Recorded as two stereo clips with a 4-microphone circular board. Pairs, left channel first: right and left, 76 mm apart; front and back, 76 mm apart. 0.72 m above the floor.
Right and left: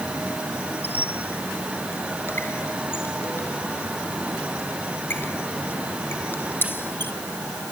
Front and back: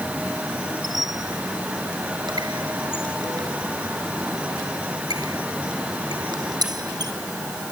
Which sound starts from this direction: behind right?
A squeak, at 0.8 s.